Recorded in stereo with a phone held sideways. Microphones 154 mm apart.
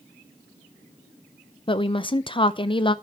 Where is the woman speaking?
35° left (ahead or behind), 0.6 m.